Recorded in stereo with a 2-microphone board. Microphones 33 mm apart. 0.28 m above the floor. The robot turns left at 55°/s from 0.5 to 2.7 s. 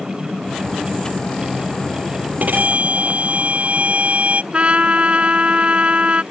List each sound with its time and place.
2.4 s a violin: 60° right (ahead or behind); by 4.4 s 45° right (ahead or behind)
4.5 s a trumpet: 35° right (ahead or behind)